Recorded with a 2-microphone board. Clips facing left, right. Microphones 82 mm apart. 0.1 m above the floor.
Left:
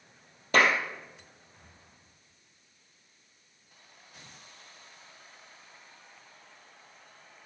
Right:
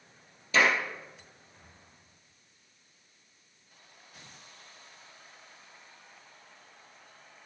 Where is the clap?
50° left (ahead or behind), 2.5 m.